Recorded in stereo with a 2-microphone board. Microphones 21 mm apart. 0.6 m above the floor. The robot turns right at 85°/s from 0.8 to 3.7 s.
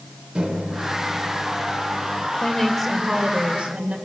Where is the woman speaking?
140° left, 3 m; by 4.0 s 110° right, 3 m.